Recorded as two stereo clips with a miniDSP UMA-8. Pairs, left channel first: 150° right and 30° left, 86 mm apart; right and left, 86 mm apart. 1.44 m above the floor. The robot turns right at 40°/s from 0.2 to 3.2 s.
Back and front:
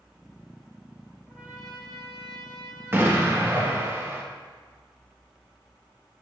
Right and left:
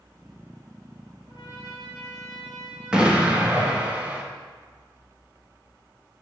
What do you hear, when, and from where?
1.3 s a trumpet: 50° right, 2 m; by 3.9 s 30° left, 2 m
2.9 s an explosion: 25° left, 0.8 m; by 4.2 s 35° left, 0.8 m